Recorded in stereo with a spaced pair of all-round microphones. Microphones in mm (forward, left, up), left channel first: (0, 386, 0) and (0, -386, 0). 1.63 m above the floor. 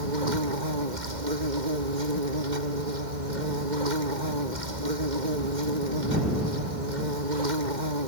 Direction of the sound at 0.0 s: 70° right (ahead or behind).